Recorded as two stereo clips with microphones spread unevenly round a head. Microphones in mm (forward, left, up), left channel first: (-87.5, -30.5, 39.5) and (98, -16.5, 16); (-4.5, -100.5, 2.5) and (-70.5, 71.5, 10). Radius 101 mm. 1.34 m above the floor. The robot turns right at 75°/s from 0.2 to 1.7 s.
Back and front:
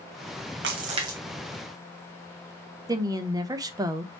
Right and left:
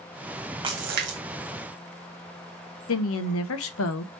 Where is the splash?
45° left, 1.2 m; by 1.2 s 85° left, 1.2 m.